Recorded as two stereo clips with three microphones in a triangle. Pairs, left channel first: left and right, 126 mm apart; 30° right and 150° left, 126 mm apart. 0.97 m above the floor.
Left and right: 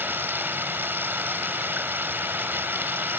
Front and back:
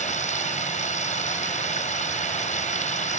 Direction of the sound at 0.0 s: 15° right.